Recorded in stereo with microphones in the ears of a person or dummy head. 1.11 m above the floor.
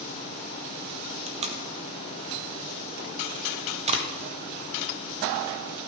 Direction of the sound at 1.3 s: 30° right (ahead or behind).